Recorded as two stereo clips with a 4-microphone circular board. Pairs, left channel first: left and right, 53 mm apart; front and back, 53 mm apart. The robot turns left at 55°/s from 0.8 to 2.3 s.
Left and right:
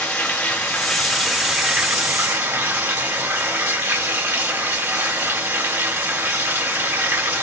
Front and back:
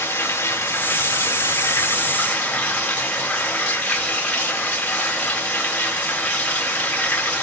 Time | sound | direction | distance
0.0 | running water | 15° left | 6 m